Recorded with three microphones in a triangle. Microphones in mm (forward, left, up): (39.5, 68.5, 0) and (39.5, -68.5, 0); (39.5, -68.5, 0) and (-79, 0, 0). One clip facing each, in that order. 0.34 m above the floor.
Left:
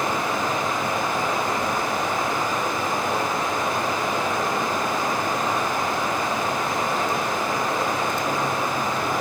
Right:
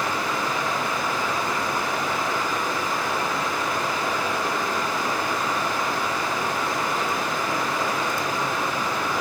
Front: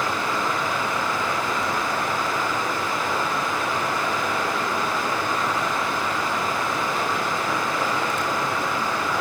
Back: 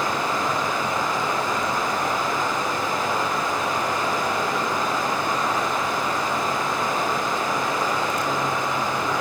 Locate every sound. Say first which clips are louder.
0.0 s running water: left 2 dB, back 1 dB; 90° left, 1.5 m